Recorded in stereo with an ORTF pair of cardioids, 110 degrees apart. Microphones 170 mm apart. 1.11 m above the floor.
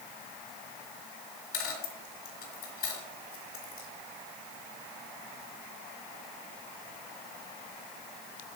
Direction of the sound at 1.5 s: 65° left.